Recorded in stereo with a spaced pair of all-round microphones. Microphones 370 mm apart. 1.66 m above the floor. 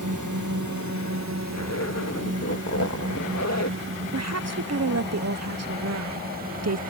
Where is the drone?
50° right (ahead or behind); by 6.9 s 25° right (ahead or behind).